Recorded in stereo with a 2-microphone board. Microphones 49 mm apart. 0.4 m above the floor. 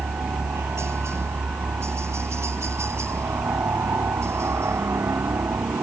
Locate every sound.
0.0 s a helicopter: 65° right (ahead or behind)